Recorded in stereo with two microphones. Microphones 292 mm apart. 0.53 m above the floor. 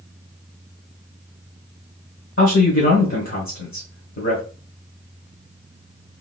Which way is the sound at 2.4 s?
50° left (ahead or behind).